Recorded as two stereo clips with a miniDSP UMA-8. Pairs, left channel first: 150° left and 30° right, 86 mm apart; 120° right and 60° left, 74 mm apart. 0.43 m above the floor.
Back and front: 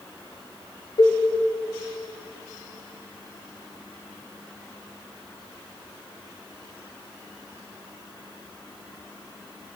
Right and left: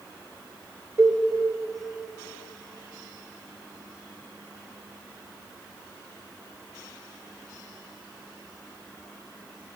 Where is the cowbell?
115° left, 1.1 m.